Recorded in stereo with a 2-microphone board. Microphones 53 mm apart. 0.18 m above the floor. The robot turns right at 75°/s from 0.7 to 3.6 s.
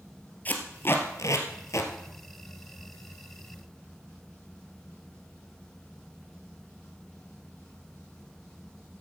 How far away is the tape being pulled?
About 1.5 m.